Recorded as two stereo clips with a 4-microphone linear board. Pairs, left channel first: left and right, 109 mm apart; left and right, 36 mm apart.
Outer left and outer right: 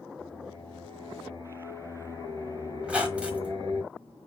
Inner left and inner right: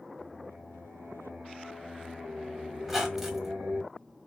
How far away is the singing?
About 2.5 m.